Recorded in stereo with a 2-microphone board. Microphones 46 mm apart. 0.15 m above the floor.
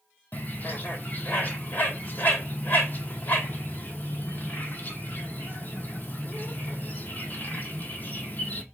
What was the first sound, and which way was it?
A bird, 40° left (ahead or behind).